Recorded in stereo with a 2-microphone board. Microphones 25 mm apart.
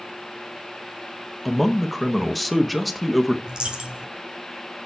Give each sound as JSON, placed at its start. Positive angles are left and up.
{"t": 1.4, "sound": "a man speaking", "side_deg": 0, "distance_m": 1.0}
{"t": 3.5, "sound": "a dropped coin", "side_deg": -40, "distance_m": 1.5}